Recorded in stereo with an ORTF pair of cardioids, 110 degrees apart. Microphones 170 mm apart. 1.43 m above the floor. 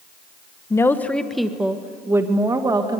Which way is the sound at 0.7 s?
15° left.